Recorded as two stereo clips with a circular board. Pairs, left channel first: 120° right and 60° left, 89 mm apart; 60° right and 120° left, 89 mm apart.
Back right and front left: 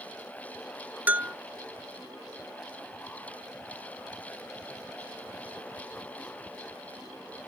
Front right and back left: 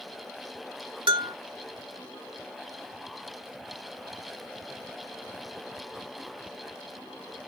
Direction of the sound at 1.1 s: 130° left.